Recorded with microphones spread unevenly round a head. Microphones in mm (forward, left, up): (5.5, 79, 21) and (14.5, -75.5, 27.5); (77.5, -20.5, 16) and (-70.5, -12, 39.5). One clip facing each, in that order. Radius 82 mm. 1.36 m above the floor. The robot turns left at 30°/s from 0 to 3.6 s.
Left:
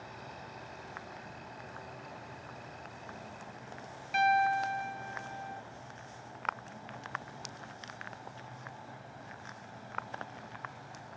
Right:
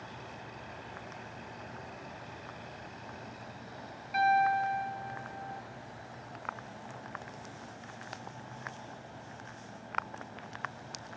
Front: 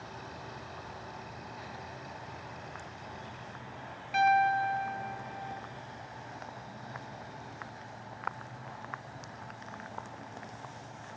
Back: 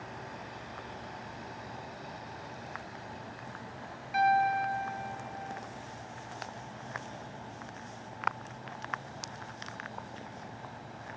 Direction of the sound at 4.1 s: 55° left.